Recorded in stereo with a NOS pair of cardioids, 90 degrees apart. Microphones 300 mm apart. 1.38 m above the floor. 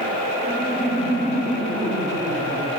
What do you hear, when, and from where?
0.4 s laughter: 30° right, 8.5 m; by 2.7 s 20° right, 6.5 m